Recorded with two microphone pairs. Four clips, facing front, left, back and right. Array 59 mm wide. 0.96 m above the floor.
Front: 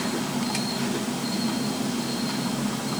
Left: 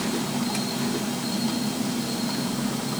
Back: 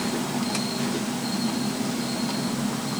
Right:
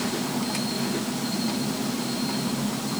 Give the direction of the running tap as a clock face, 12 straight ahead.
No running tap in this recording.